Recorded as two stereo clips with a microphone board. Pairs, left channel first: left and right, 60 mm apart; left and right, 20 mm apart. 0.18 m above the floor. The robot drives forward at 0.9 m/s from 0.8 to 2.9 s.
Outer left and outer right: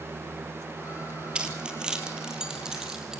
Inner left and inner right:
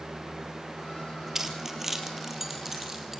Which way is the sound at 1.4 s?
20° right (ahead or behind).